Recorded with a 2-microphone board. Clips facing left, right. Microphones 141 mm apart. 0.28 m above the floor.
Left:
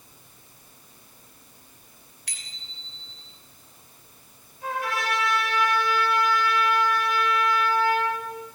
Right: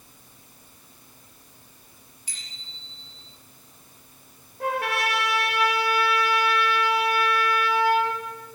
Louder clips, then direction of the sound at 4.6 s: Right 3 dB; 70° right (ahead or behind).